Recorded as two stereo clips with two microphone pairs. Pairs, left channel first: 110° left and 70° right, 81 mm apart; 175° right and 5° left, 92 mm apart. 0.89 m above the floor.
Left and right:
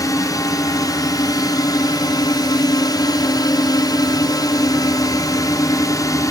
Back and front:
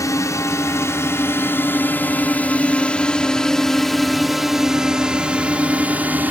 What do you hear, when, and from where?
0.0 s a drone: 140° left; by 6.3 s 75° left